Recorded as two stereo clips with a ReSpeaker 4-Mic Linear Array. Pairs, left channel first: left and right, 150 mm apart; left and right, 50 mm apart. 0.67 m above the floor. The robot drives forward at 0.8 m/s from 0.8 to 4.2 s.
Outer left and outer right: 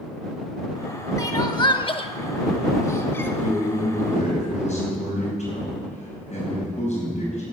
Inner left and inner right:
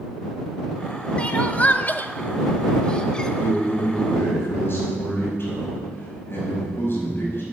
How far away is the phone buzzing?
I don't hear a phone buzzing.